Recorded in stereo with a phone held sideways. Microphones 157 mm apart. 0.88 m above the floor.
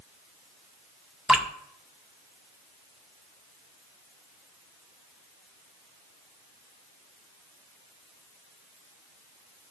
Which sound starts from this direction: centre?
Dripping, at 1.3 s.